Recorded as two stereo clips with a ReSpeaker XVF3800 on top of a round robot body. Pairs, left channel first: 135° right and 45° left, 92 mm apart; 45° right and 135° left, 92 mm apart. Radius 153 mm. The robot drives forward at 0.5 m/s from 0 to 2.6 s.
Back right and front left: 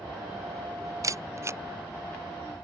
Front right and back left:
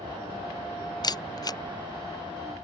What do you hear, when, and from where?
0.0 s an aircraft: 125° left
1.0 s a camera shutter: 5° right; by 1.6 s 10° right